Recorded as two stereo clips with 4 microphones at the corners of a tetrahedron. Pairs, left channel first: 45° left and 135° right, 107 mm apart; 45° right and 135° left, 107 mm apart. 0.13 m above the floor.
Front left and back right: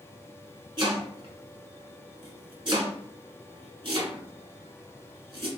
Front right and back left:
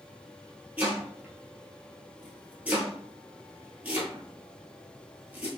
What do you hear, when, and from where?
0.8 s chopping: 155° right, 1.0 m